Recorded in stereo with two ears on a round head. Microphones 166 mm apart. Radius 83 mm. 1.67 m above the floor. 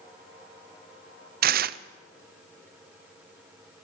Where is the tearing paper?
50° right (ahead or behind), 0.7 m.